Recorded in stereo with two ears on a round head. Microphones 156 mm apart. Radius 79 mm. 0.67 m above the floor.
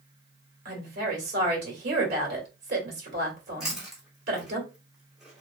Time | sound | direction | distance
0.7 | a woman speaking | 65° right (ahead or behind) | 1.7 m
3.6 | chewing | 5° right (ahead or behind) | 1.3 m